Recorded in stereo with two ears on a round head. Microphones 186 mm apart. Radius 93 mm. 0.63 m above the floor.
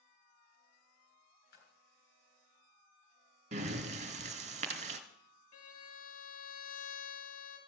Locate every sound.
1.5 s a splash: 50° left (ahead or behind), 3.5 m
3.5 s breathing: 35° right (ahead or behind), 1.4 m
5.5 s a violin: 75° left (ahead or behind), 3 m